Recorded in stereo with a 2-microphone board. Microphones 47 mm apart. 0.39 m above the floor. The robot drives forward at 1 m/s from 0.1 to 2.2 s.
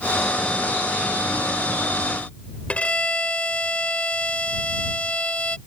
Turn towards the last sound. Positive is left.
turn(degrees=25)  # may be behind; listen again after turning